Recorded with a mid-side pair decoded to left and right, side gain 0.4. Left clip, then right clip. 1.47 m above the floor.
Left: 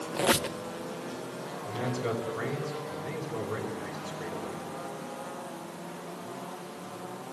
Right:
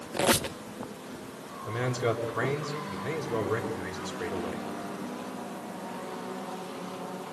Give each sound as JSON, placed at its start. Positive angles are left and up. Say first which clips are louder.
{"t": 0.1, "sound": "a squeak", "louder": "right 1 dB", "azimuth_deg": -20, "distance_m": 1.0}
{"t": 1.7, "sound": "a man speaking", "louder": "right 4 dB", "azimuth_deg": -60, "distance_m": 5.5}